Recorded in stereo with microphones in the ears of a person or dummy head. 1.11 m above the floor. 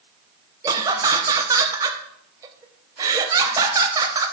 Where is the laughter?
15° right (ahead or behind), 0.8 m.